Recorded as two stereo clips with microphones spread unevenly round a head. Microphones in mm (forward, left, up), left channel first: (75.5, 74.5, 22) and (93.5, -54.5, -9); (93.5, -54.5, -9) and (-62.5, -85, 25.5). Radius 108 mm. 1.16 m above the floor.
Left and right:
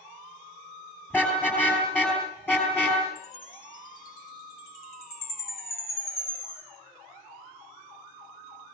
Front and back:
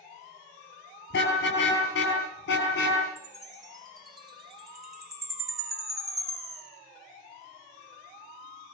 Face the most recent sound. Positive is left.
turn(degrees=115)